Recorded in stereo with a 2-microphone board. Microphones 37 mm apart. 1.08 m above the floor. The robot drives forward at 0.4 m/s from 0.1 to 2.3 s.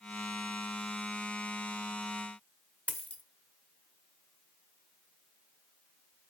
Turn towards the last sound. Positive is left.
turn(degrees=40)  # may be behind; listen again after turning